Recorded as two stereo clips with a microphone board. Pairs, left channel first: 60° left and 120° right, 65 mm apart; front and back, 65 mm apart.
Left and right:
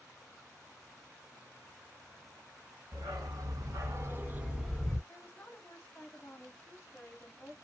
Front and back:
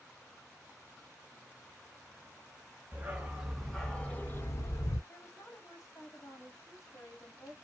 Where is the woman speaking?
10° right, 1.2 m.